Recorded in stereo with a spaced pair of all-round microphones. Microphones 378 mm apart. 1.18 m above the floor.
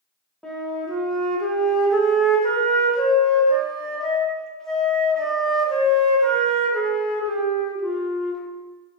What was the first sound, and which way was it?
A flute, centre (ahead or behind).